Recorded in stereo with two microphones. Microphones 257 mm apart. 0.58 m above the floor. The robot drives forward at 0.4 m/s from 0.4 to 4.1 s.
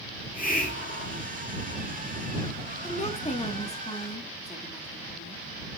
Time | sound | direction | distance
0.1 | a hiss | 35° left (ahead or behind) | 1.0 m
2.8 | a woman speaking | 25° left (ahead or behind) | 1.0 m